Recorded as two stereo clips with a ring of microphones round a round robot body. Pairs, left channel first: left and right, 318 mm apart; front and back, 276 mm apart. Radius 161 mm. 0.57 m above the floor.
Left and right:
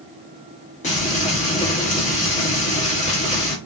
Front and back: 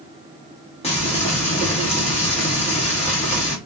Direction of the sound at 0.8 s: 45° left.